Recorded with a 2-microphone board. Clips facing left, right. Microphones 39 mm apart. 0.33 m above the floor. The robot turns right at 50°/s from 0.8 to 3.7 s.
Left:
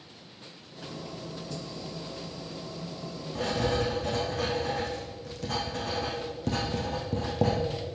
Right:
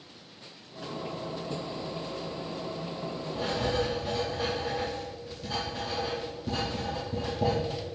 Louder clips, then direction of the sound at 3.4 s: Left 1 dB; 85° left.